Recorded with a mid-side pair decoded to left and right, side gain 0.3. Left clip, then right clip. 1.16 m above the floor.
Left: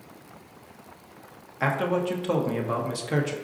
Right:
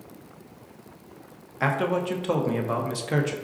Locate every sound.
1.6 s a man speaking: 10° right, 0.7 m